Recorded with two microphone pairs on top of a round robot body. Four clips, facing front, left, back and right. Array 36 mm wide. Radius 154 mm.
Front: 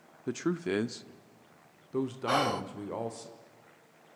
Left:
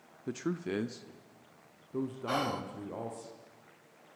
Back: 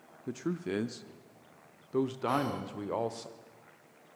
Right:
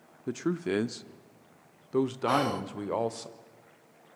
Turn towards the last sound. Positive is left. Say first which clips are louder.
# right 3 dB, front 3 dB
turn(degrees=-10)